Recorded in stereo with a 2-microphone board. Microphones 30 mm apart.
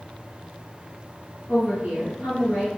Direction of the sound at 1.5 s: 45° right (ahead or behind).